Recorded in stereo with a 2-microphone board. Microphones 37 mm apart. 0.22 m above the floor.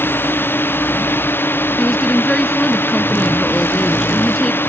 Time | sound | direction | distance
0.0 | a drone | 75° left (ahead or behind) | ?
1.8 | a woman speaking | 15° left (ahead or behind) | ?